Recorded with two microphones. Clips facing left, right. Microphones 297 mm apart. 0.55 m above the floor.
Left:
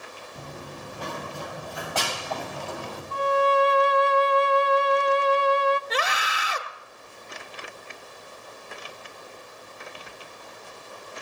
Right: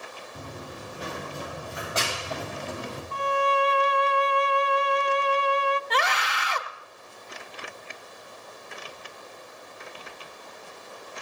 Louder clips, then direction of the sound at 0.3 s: Even; 20° right (ahead or behind).